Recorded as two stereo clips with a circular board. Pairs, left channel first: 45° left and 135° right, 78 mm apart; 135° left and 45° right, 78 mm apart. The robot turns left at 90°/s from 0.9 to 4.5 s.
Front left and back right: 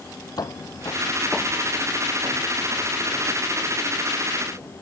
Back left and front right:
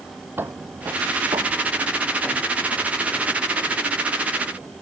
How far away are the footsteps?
About 1.1 m.